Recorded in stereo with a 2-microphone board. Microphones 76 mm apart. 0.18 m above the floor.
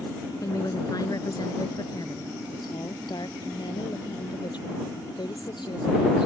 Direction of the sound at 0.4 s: 50° left (ahead or behind).